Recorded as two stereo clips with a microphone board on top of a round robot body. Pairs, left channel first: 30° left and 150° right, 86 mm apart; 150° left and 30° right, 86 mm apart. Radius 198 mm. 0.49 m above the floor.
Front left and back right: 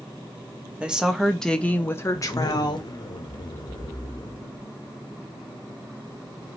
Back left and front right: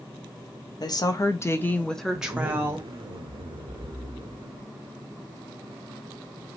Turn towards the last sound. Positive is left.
turn(degrees=-10)